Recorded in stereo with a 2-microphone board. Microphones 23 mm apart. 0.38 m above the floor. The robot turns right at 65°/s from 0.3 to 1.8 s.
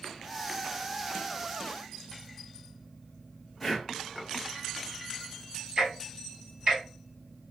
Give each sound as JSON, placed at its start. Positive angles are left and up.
{"t": 3.6, "sound": "breathing", "side_deg": 0, "distance_m": 1.0}
{"t": 5.8, "sound": "ticking", "side_deg": -40, "distance_m": 1.8}